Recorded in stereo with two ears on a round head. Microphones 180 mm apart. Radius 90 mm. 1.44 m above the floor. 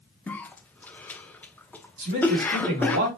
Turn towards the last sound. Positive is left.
turn(degrees=-45)  # may be behind; listen again after turning